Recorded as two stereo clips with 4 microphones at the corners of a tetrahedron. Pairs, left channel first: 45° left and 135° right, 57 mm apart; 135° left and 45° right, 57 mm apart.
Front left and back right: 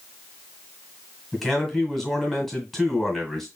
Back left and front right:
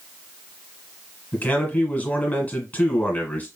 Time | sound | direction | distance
1.3 | a man speaking | 135° left | 1.6 m